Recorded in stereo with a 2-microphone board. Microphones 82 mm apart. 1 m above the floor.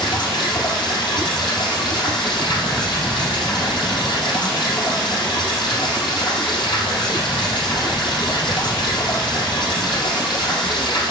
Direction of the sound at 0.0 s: 70° left (ahead or behind).